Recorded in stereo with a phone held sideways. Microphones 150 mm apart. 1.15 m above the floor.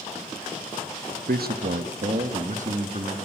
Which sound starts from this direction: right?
A man speaking, at 1.3 s.